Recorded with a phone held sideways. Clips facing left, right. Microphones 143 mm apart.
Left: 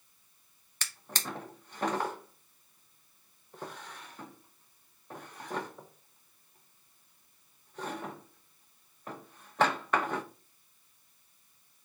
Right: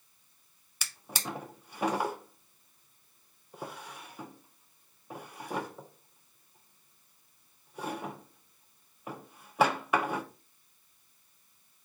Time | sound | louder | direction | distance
0.8 | a drawer | right 1 dB | 10° right (ahead or behind) | 0.6 m